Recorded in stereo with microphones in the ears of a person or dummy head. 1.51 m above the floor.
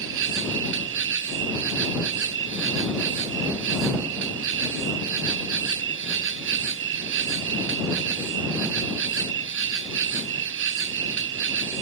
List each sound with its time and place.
0.0 s an insect: 65° right (ahead or behind)